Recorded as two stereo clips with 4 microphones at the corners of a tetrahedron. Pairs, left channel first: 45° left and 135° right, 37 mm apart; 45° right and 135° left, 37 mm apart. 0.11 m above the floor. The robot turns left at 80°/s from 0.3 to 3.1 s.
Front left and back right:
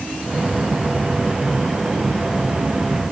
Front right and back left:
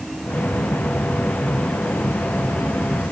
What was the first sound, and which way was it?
Only background noise.